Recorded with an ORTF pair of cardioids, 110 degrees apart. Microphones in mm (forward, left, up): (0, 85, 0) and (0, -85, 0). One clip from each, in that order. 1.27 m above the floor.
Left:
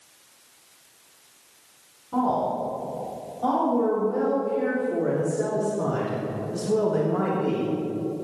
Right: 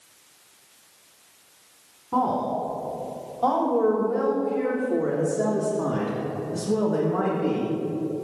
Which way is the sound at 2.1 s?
40° right.